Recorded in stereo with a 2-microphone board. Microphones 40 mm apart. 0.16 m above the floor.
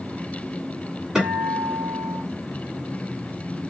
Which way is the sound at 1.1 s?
15° right (ahead or behind).